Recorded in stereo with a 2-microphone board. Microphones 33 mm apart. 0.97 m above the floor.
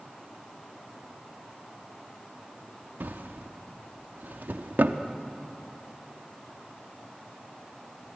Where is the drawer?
70° right (ahead or behind), 1.1 m.